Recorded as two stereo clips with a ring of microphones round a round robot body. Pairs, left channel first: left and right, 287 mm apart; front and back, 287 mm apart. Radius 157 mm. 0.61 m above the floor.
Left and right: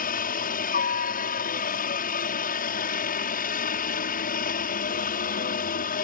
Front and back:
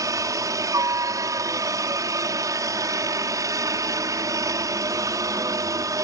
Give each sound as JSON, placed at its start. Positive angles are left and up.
{"t": 0.0, "sound": "a helicopter", "azimuth_deg": 115}